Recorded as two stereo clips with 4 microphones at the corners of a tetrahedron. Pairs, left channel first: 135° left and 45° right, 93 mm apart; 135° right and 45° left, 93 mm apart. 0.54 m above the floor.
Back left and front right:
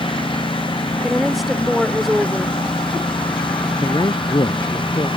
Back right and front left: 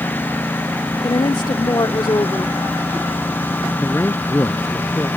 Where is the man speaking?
165° left.